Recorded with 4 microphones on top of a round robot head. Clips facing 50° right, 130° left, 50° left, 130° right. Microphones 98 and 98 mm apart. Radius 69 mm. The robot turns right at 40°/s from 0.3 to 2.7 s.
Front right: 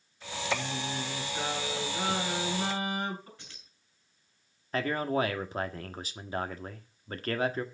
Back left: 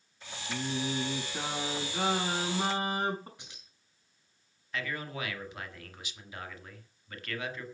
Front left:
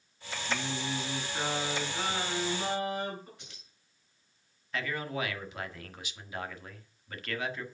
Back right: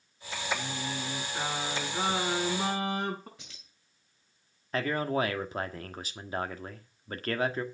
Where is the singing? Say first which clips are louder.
Back left 1 dB, front left 1 dB; 105° left, 6 m; by 3.3 s 170° right, 6 m.